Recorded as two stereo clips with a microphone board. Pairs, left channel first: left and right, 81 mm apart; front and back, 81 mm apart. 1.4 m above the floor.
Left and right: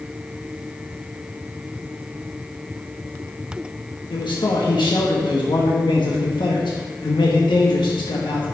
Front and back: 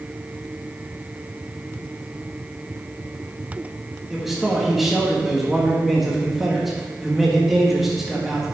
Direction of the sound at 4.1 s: 95° left.